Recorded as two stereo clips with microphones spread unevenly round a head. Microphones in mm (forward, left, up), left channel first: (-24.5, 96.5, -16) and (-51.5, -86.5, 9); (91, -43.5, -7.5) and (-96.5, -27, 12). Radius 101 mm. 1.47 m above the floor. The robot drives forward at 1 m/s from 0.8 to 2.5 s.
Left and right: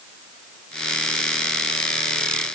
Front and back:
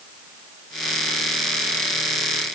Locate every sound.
Only background noise.